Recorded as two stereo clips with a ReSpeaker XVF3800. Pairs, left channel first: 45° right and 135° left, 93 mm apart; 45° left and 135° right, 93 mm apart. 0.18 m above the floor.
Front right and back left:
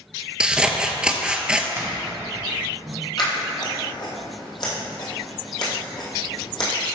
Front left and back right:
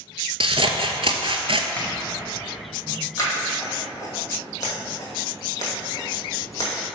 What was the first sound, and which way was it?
Scissors, 145° right.